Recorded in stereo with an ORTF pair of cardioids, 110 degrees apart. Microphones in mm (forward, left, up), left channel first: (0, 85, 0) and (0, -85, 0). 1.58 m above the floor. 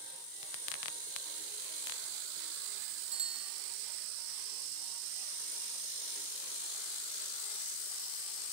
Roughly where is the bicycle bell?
Ahead right.